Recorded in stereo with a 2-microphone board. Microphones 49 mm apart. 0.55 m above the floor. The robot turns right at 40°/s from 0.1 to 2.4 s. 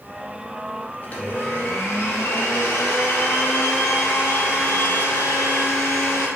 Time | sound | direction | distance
1.0 | a blender | 40° left | 0.6 m